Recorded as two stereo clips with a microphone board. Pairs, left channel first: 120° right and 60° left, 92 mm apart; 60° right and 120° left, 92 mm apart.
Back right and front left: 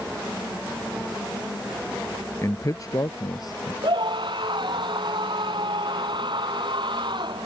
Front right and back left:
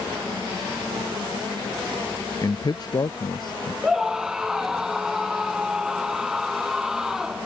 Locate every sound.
2.4 s a man speaking: 85° right
3.8 s a scream: 35° left